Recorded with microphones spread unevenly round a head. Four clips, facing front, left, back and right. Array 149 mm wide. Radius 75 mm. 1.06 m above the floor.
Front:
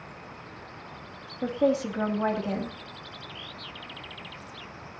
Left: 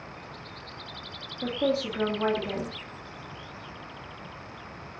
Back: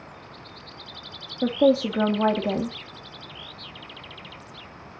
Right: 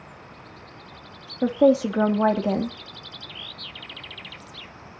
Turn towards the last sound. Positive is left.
turn(degrees=-120)